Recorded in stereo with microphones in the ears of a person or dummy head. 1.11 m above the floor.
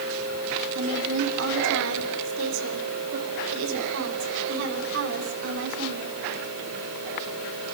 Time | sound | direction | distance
0.8 | a woman speaking | 85° right | 3 m